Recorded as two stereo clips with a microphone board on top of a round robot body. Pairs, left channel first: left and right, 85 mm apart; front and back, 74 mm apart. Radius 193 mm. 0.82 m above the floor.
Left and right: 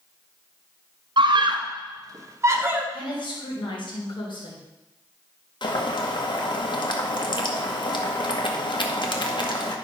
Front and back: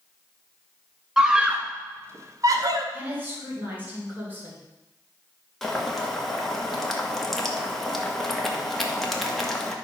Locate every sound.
1.2 s a scream: 105° right, 1.9 m; by 2.8 s 155° right, 1.8 m
2.9 s a woman speaking: 115° left, 3.5 m
5.6 s boiling: 90° left, 1.8 m